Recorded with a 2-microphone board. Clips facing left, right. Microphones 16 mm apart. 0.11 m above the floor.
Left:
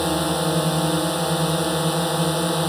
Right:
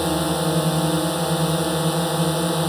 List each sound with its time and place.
0.0 s a drone: 5° left (ahead or behind)